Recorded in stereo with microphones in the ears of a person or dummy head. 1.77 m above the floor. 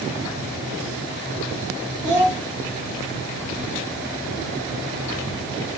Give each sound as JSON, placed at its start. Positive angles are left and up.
{"t": 2.0, "sound": "a child speaking", "side_deg": -10, "distance_m": 2.5}